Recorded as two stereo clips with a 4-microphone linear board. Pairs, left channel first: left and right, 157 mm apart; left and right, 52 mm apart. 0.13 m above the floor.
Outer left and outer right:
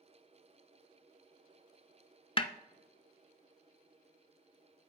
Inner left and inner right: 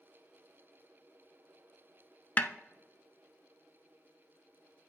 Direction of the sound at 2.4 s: 35° left (ahead or behind).